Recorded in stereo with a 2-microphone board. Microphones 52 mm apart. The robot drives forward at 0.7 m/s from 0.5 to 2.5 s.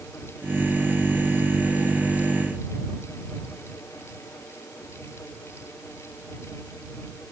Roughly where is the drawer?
No drawer in this recording.